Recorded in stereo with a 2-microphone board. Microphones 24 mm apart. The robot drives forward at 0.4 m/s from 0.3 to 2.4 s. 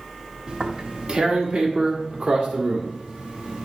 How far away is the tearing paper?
About 1.5 m.